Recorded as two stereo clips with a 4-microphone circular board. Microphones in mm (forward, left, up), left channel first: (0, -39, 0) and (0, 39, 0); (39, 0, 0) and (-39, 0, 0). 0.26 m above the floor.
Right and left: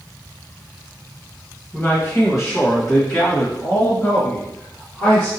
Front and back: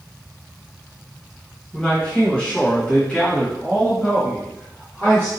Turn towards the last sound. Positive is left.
turn(degrees=-70)